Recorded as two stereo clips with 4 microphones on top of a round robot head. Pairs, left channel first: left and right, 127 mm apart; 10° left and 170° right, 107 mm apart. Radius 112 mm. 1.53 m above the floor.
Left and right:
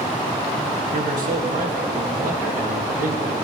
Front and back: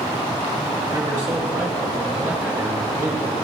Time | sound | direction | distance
0.9 | a man speaking | 105° right | 1.7 m